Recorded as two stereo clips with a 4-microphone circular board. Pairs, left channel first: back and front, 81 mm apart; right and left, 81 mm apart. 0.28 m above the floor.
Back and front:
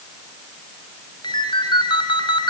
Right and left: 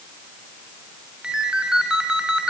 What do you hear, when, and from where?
1.2 s a ringtone: 170° left, 2 m